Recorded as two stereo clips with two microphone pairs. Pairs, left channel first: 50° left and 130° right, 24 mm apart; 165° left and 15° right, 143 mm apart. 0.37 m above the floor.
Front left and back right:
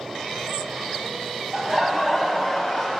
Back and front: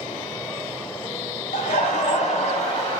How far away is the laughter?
About 1.9 m.